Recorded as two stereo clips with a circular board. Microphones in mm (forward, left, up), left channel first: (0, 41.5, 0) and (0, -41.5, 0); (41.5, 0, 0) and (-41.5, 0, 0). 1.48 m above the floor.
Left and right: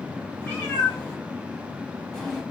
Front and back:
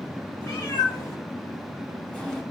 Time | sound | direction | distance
0.4 | a cat meowing | 25° left | 2 m